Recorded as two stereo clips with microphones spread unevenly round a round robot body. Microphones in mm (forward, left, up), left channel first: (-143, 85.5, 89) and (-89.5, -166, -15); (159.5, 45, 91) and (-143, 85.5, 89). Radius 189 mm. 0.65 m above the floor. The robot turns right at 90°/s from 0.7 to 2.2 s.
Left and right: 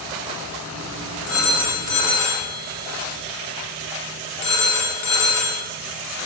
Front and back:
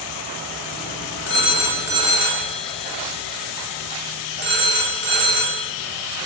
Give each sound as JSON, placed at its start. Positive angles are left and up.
{"t": 1.3, "sound": "a phone ringing", "azimuth_deg": 35, "distance_m": 1.3}